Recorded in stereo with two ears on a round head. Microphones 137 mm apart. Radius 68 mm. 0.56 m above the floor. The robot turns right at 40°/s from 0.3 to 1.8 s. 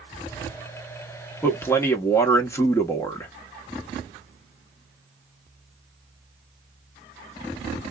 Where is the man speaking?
10° left (ahead or behind), 1.0 m; by 3.3 s 20° left (ahead or behind), 1.0 m.